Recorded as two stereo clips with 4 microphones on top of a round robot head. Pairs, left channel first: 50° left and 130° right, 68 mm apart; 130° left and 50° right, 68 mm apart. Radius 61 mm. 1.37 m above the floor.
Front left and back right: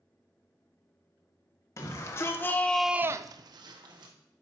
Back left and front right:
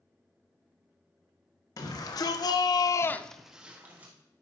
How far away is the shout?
About 1.7 m.